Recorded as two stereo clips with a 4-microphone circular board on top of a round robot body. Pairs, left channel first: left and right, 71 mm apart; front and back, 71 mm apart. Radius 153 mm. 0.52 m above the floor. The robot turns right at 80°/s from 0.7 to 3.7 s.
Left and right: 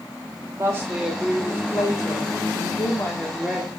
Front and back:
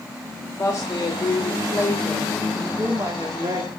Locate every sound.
0.6 s a woman speaking: 45° right, 2.0 m; by 3.7 s 165° right, 2.0 m